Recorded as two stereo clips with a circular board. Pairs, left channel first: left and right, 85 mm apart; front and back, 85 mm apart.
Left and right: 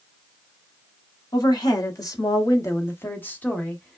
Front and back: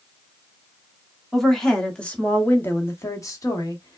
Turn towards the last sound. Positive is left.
turn(degrees=10)